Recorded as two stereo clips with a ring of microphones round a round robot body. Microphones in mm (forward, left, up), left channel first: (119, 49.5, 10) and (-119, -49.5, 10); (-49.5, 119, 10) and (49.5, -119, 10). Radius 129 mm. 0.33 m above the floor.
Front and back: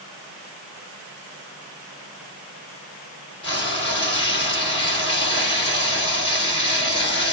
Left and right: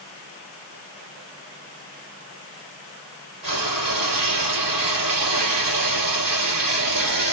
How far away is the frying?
About 3 m.